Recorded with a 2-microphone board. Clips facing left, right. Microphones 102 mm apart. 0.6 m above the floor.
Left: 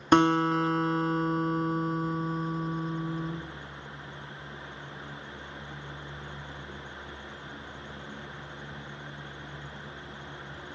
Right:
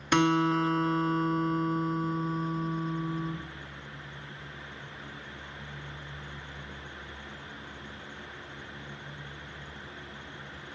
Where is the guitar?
35° left (ahead or behind), 0.7 m.